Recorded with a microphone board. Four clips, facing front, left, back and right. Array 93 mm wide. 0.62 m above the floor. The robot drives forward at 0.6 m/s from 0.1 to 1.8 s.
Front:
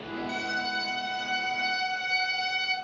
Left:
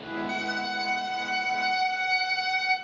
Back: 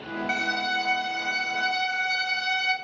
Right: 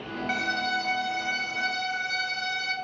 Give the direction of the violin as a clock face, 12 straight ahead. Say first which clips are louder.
Right 6 dB, back 5 dB; 5 o'clock.